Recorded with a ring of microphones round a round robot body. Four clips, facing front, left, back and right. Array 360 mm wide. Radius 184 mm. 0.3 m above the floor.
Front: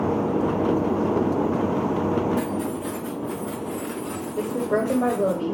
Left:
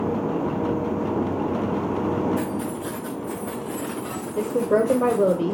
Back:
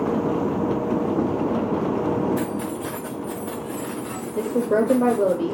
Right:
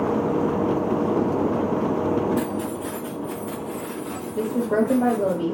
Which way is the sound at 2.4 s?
155° right.